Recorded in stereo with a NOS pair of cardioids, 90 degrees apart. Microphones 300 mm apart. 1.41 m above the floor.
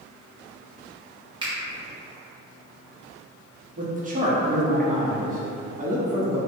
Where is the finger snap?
15° right, 1.0 m.